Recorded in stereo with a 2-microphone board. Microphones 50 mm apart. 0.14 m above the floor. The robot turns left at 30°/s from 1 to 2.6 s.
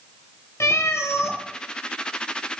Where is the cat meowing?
70° left (ahead or behind), 0.9 m.